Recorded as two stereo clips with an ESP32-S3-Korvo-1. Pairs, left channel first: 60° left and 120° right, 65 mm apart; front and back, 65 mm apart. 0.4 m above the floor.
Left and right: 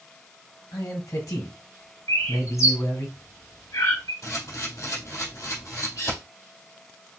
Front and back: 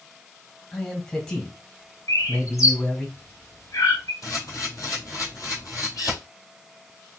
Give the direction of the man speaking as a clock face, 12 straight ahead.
10 o'clock.